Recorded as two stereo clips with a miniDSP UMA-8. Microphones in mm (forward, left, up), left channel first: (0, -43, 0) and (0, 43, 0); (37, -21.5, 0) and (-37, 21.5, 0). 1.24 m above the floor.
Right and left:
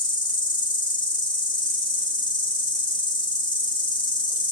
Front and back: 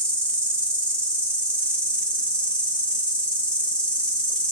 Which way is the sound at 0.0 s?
110° right.